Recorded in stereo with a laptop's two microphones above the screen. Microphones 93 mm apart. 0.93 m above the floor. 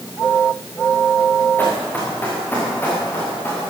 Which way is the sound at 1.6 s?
20° left (ahead or behind).